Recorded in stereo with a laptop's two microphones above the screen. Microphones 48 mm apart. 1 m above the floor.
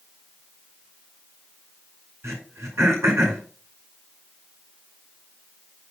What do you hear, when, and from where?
2.2 s throat clearing: 80° right, 5 m